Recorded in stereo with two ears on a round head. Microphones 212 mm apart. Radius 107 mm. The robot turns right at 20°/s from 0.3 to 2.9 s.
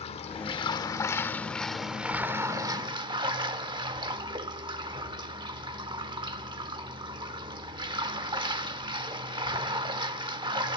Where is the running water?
150° left, 0.9 m; by 10.8 s 155° right, 0.9 m.